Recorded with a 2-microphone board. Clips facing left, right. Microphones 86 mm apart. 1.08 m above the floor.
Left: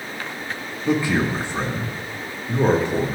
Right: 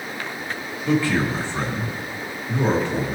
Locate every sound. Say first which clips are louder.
0.8 s a man speaking: even; 20° left (ahead or behind), 1.9 m